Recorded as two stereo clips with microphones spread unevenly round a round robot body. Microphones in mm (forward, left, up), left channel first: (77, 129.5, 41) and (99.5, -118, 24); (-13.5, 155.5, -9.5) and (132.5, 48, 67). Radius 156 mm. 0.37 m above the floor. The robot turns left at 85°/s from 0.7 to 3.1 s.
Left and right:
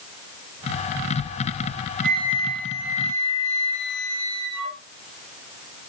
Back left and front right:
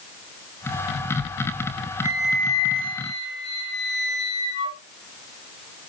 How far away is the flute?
About 4 m.